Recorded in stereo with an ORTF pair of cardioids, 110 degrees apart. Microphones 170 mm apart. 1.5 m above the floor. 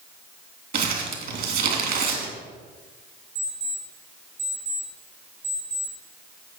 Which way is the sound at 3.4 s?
70° right.